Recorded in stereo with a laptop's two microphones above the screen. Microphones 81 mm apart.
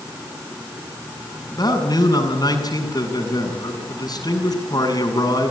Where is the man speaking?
50° left (ahead or behind), 7 m.